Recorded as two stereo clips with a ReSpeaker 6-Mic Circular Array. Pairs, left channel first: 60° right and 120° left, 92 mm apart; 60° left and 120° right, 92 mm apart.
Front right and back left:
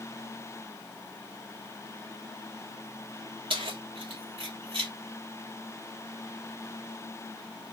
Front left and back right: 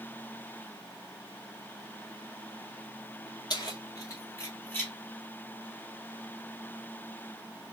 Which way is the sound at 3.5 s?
100° left.